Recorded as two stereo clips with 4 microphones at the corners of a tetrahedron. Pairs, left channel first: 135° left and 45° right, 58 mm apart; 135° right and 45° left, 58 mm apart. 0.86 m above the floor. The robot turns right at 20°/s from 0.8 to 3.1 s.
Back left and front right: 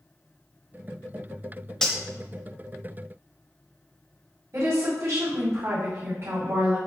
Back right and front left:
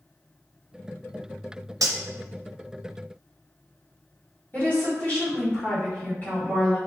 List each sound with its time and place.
1.8 s cutlery clinking: 55° left, 0.6 m; by 2.0 s 60° left, 0.6 m
4.5 s a woman speaking: 70° right, 2 m